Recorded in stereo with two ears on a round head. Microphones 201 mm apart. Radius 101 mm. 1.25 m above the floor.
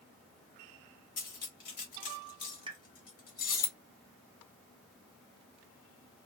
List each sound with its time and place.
1.2 s cutlery clinking: 40° left (ahead or behind), 2 m
2.7 s a pop: 20° right (ahead or behind), 0.7 m